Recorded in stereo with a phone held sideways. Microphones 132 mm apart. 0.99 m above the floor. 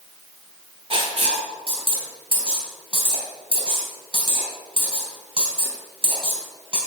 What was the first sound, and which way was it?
Writing, 45° right (ahead or behind).